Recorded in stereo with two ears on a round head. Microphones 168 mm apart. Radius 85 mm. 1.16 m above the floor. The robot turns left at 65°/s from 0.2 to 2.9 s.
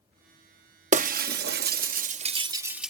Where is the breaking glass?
35° right (ahead or behind); by 2.9 s centre (ahead or behind).